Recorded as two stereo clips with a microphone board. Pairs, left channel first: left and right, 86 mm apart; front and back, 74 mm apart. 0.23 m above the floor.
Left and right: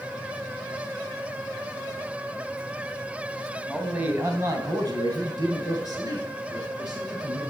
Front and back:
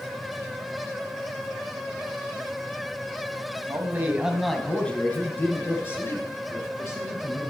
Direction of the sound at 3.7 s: 175° right.